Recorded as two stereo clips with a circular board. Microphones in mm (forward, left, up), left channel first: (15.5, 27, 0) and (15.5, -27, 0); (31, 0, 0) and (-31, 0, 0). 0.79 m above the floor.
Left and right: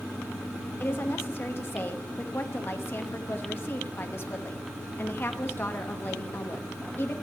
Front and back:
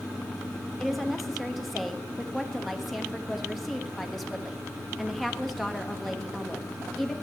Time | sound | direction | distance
0.8 | a woman speaking | 90° left | 1.0 m